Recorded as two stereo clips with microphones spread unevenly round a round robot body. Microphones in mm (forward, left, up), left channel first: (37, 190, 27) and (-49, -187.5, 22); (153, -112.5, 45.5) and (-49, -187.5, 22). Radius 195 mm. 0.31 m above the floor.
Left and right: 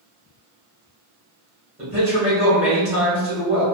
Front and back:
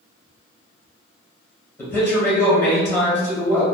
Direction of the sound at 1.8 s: 60° right.